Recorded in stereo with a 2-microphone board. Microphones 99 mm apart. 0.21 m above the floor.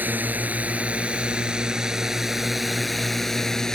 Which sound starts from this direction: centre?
A drone, at 0.0 s.